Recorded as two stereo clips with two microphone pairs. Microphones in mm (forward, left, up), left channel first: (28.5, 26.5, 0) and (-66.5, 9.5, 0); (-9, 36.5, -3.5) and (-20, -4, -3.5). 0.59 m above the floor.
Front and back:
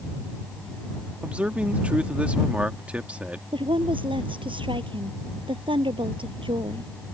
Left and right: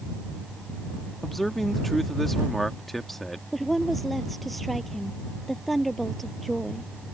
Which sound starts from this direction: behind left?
A man speaking, at 1.2 s.